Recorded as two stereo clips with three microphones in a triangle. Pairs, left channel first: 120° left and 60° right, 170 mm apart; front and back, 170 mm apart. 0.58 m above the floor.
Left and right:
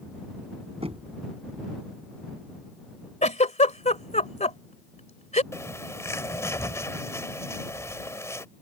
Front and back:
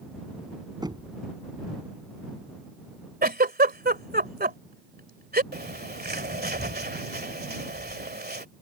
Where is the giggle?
165° left.